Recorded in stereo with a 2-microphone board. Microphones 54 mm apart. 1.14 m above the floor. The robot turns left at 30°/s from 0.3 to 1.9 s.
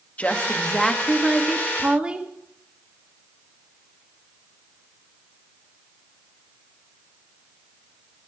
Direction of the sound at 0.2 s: 30° left.